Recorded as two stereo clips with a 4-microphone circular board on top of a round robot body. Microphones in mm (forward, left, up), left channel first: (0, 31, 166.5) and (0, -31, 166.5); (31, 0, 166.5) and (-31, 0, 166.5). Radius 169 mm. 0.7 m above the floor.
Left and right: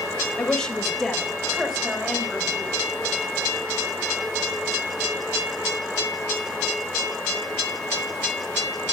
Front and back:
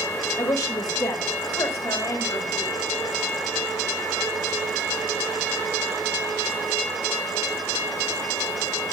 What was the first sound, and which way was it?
A woman speaking, 15° left.